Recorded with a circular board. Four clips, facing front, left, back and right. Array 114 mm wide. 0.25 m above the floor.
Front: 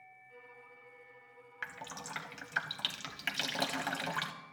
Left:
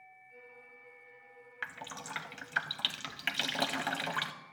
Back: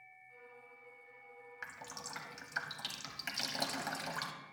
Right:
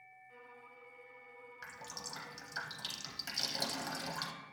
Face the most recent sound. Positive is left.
turn(degrees=65)